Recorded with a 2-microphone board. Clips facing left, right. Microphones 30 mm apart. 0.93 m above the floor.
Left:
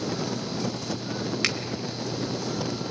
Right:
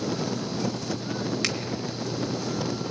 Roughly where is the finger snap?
Centre.